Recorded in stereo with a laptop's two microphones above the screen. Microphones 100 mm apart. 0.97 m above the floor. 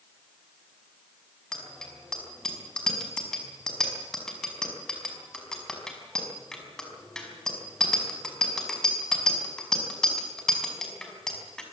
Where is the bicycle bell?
5° left (ahead or behind), 5.5 m.